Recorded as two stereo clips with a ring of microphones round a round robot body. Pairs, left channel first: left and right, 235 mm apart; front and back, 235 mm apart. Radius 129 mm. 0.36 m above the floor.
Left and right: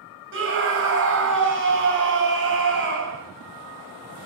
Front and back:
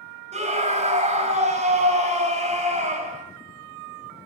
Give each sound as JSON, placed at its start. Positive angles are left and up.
{"t": 0.3, "sound": "a scream", "azimuth_deg": -120, "distance_m": 2.0}